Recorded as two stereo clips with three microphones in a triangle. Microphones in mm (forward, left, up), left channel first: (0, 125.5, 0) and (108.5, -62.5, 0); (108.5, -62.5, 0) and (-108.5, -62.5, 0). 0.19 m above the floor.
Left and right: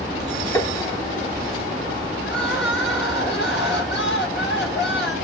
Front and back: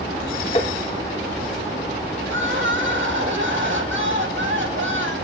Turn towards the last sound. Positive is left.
turn(degrees=155)